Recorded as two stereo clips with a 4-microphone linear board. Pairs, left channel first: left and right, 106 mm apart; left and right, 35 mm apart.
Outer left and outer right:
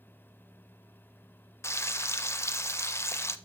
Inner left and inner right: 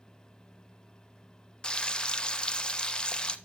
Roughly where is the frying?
Left.